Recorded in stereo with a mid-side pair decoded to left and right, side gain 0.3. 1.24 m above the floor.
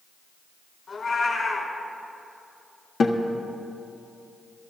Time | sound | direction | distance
0.9 | a cat meowing | 60° left | 5 m
3.0 | a guitar | 70° left | 1.4 m